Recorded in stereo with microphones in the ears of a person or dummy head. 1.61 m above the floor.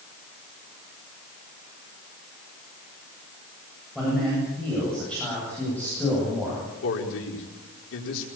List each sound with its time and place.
4.0 s a man speaking: centre (ahead or behind), 9.5 m; by 6.6 s 10° left (ahead or behind), 11 m
6.8 s a man speaking: 75° left (ahead or behind), 4 m